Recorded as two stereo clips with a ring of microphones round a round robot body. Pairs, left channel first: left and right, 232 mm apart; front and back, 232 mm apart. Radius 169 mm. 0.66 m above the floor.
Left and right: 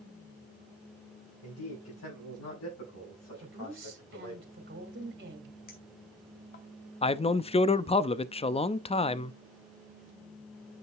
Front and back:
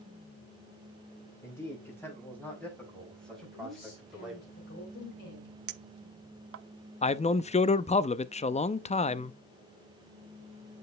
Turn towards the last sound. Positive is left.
turn(degrees=40)